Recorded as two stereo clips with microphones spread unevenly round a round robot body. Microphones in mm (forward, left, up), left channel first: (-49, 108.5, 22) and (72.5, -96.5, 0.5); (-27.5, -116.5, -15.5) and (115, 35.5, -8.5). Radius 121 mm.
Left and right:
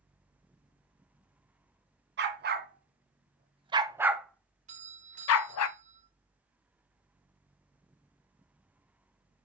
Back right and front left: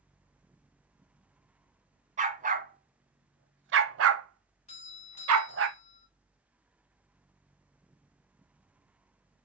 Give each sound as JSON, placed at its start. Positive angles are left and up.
{"t": 2.2, "sound": "a dog barking", "azimuth_deg": -10, "distance_m": 1.7}
{"t": 4.7, "sound": "a doorbell", "azimuth_deg": -95, "distance_m": 2.5}